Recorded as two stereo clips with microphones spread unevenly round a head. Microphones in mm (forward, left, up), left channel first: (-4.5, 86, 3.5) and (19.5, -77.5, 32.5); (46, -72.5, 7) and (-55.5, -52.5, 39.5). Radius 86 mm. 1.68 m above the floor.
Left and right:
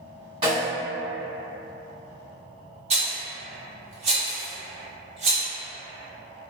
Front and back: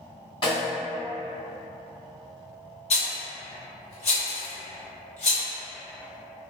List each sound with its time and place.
0.4 s a snare drum: 50° right, 1.7 m
2.9 s a rattle: 35° right, 1.1 m